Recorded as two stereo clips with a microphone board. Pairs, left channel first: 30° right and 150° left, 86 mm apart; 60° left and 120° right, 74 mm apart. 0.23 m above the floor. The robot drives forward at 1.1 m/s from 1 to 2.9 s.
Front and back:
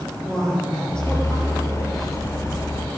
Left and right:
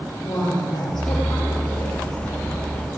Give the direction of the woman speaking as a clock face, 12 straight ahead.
10 o'clock.